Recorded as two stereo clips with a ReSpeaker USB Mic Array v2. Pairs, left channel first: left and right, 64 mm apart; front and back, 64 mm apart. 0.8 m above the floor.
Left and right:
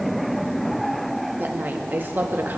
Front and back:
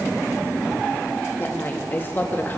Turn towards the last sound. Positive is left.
turn(degrees=-45)